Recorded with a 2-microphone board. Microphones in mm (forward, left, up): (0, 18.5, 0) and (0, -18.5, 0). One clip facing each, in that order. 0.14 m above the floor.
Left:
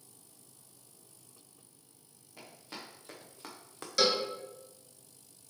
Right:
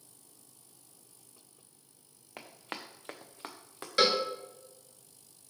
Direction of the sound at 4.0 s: 30° right (ahead or behind).